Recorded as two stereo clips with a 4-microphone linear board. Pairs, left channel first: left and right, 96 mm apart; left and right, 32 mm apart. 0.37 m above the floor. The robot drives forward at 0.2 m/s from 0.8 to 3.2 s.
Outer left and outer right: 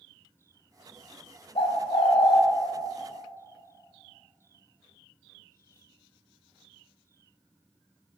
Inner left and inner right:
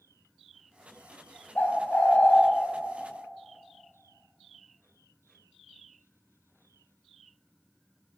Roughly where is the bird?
Left.